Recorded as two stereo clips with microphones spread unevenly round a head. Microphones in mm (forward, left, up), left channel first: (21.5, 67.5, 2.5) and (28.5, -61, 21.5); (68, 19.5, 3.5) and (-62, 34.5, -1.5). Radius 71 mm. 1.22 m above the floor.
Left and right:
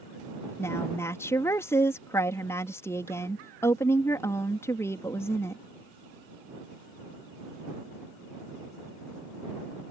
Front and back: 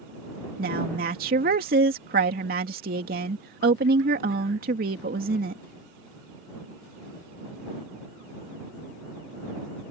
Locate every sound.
0.6 s a woman speaking: 165° left